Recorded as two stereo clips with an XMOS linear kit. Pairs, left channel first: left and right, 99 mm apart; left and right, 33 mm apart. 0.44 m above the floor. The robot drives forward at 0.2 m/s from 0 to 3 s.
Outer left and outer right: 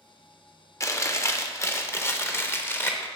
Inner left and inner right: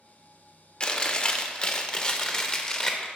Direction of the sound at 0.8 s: 30° left (ahead or behind).